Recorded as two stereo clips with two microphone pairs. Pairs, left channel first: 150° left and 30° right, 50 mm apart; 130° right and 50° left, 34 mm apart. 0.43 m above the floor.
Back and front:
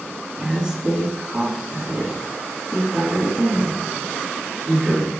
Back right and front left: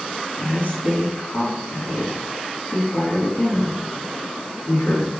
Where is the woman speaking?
105° right, 5.5 m.